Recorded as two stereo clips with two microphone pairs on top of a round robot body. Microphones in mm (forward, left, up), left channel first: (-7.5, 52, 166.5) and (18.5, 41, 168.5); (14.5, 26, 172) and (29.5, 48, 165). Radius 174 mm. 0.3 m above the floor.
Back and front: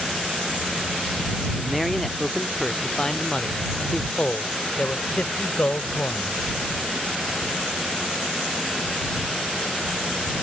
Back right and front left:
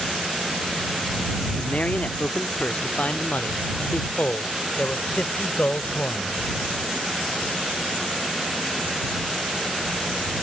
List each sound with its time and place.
1.6 s a man speaking: 110° right; by 6.4 s 165° right